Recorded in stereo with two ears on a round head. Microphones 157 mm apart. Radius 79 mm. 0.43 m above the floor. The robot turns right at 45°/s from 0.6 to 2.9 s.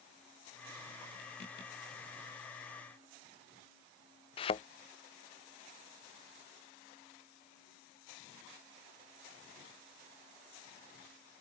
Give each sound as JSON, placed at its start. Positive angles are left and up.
{"t": 4.4, "sound": "a thud", "side_deg": 30}